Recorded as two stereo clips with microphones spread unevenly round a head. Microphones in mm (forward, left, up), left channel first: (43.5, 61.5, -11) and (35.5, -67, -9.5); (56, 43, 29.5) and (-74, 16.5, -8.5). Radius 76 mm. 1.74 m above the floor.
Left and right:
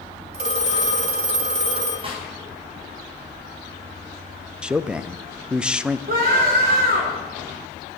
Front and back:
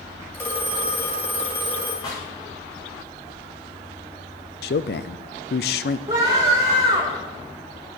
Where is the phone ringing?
60° right, 2.5 m.